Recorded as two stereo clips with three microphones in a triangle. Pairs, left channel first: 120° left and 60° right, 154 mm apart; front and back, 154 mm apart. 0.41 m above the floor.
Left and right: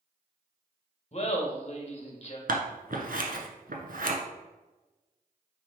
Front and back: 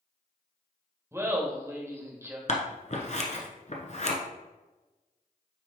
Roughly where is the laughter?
Behind left.